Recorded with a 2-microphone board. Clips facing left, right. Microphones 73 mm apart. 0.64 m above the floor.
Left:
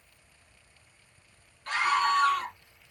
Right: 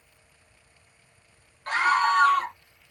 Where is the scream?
40° right (ahead or behind), 0.9 m.